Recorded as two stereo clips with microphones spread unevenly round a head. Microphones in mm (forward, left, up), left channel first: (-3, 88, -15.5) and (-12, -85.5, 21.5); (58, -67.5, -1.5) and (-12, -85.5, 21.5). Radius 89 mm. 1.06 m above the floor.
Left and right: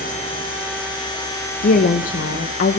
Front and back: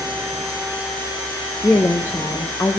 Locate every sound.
1.6 s a woman speaking: 65° left, 0.6 m